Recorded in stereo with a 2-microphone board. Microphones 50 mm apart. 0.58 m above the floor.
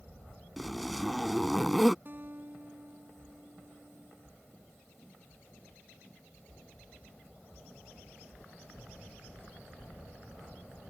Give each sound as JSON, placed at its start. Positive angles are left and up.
{"t": 0.6, "sound": "a zipper", "side_deg": 0}
{"t": 2.0, "sound": "a guitar", "side_deg": -40}